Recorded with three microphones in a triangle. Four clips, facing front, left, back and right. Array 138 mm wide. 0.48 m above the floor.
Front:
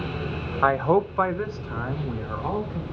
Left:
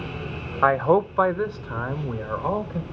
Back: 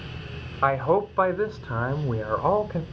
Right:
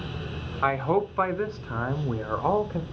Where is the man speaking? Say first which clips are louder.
Left 6 dB, front 1 dB; 65° left, 0.9 m; by 2.8 s 155° right, 1.1 m.